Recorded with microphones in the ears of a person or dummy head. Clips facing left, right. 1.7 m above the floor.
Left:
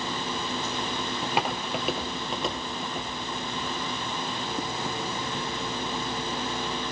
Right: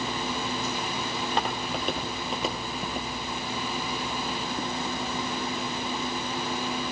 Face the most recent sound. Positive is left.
turn(degrees=-10)  # may be behind; listen again after turning